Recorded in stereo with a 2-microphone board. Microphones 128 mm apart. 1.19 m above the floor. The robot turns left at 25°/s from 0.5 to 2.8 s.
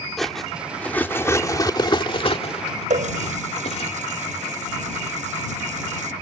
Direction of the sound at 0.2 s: Centre (ahead or behind).